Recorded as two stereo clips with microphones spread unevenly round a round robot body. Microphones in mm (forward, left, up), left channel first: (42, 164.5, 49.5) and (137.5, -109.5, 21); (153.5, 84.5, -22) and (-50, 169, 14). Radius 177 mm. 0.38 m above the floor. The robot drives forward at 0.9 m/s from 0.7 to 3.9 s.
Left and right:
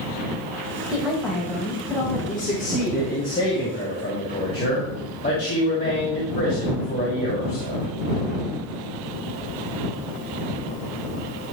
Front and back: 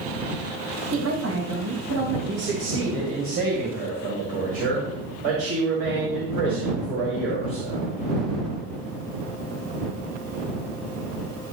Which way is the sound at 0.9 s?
155° right.